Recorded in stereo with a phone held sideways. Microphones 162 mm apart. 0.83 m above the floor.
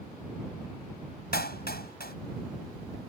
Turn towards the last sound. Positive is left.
turn(degrees=85)